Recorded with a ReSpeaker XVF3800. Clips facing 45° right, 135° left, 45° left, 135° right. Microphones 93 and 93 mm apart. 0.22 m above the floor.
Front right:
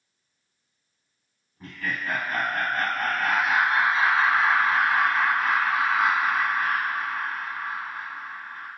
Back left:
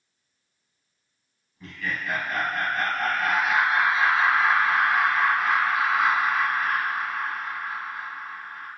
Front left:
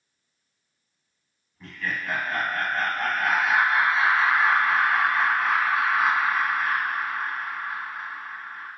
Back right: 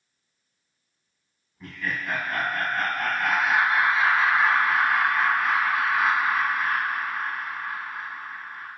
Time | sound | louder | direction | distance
1.6 | laughter | even, even | 55° right | 1.2 m